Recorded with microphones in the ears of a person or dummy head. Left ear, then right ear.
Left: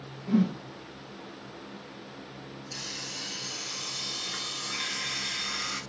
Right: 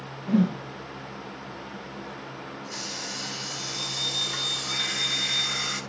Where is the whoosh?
25° right (ahead or behind), 0.5 m.